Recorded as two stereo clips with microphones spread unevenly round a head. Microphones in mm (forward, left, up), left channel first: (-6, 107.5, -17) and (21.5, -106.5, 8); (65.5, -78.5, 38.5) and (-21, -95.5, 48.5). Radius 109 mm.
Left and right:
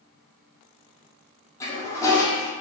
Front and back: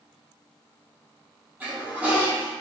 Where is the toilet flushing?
170° left, 0.6 m.